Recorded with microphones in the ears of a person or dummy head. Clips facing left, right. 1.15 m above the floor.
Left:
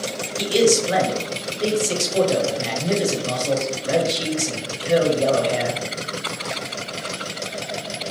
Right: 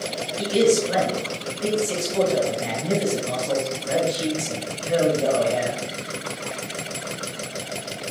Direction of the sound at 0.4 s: 55° left (ahead or behind).